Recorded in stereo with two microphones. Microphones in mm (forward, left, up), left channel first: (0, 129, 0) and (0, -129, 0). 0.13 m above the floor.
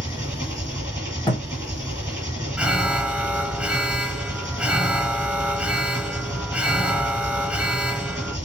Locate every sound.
0.0 s an engine running: 10° right (ahead or behind), 1.7 m
1.3 s a thud: 15° left (ahead or behind), 1.7 m
2.6 s an alarm: 5° right (ahead or behind), 0.8 m